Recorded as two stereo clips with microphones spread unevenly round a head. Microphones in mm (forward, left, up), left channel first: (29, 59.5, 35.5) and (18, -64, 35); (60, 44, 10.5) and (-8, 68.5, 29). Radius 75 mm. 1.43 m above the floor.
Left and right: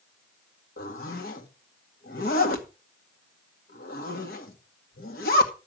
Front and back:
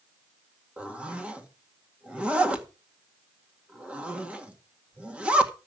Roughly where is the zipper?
Left.